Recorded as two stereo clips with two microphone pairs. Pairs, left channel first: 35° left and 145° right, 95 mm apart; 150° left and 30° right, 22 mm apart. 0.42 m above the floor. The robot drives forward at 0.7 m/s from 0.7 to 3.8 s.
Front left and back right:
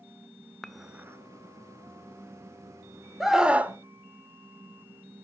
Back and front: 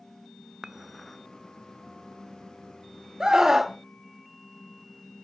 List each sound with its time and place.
0.6 s dishes clattering: 45° right, 0.5 m; by 1.2 s 145° right, 0.6 m
3.2 s a scream: 60° right, 1.1 m; by 3.8 s 100° right, 1.1 m